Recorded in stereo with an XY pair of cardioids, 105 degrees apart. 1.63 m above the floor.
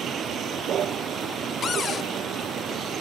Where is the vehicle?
60° right.